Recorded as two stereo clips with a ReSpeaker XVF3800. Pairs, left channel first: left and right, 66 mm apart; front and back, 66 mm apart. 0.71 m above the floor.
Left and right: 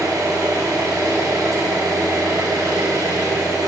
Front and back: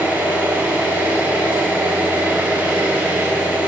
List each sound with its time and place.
0.0 s an engine running: 115° right, 3.5 m